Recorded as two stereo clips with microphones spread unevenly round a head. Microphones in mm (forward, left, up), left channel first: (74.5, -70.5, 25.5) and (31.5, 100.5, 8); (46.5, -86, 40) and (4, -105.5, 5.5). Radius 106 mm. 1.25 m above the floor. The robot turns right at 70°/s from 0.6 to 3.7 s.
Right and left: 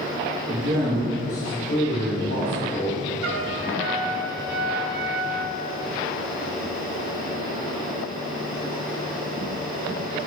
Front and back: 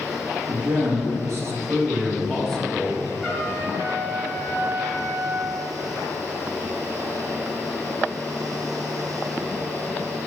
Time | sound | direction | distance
0.5 | a man speaking | 155° left | 2.5 m
3.2 | a trumpet | 110° left | 1.0 m